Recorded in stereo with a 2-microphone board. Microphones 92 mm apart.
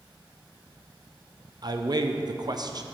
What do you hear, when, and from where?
1.6 s a man speaking: 45° right (ahead or behind), 0.7 m